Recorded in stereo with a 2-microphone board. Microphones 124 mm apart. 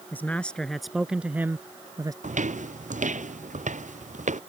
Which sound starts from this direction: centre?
A man speaking, at 0.1 s.